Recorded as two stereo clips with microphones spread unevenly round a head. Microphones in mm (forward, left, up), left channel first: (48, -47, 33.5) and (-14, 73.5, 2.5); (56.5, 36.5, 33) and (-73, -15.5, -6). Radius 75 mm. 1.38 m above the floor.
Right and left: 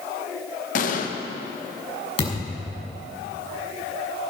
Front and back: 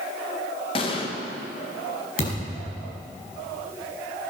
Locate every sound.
0.8 s an explosion: 35° right, 1.4 m
2.2 s a thud: 15° right, 5.5 m